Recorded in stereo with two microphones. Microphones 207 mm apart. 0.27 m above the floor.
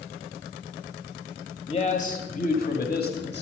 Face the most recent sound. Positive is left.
turn(degrees=55)  # may be behind; listen again after turning